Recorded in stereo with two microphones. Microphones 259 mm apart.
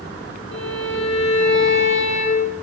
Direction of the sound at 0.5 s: 50° left (ahead or behind).